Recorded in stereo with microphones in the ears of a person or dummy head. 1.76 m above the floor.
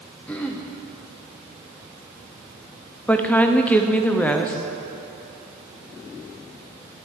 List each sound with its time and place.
0.3 s throat clearing: 5° left (ahead or behind), 0.6 m
3.1 s a woman speaking: 5° left (ahead or behind), 0.6 m